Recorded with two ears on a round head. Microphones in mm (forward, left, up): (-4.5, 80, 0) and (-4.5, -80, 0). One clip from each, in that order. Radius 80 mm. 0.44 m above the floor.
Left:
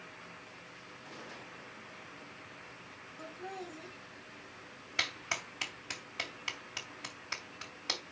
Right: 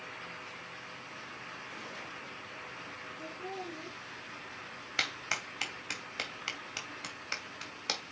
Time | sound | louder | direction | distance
3.2 | laughter | right 1 dB | 40° left (ahead or behind) | 5 m
5.0 | a clap | right 1 dB | 10° right (ahead or behind) | 2.5 m